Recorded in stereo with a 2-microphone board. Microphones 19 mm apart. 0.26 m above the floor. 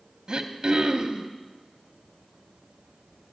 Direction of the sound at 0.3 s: 45° right (ahead or behind).